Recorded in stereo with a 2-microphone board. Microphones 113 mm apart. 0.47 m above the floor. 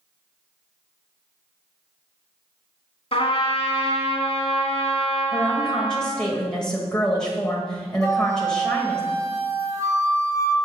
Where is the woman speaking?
5° left (ahead or behind), 1.7 m.